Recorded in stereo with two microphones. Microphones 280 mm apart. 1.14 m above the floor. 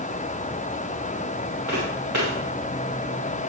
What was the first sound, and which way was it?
Footsteps, 75° right (ahead or behind).